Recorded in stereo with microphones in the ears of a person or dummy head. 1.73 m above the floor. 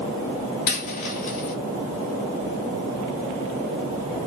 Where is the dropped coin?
25° left (ahead or behind), 1.2 m.